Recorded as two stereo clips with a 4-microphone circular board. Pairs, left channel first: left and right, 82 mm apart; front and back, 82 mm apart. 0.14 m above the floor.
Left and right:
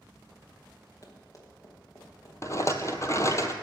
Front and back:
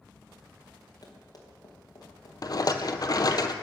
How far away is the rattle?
About 1.0 m.